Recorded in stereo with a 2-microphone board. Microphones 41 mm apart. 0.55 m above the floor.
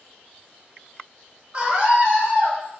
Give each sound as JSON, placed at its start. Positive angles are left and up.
{"t": 1.5, "sound": "a scream", "side_deg": -30, "distance_m": 1.1}